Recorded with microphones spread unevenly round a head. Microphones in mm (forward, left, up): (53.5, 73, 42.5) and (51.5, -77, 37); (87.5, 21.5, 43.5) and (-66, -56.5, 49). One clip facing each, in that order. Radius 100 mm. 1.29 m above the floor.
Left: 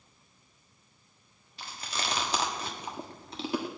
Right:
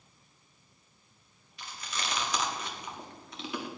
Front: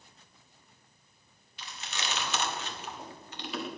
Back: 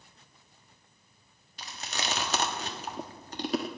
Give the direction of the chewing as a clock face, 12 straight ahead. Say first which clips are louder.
Left 2 dB, back 3 dB; 7 o'clock.